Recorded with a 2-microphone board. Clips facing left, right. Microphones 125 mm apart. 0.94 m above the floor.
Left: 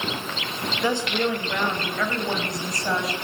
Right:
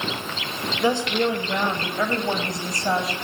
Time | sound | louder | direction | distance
0.8 | a woman speaking | right 3 dB | 20° right (ahead or behind) | 5 m